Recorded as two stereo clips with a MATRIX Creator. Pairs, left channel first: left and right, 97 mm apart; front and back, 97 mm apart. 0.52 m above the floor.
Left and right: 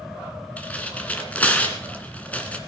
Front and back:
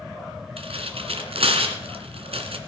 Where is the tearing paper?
165° left, 1.7 m.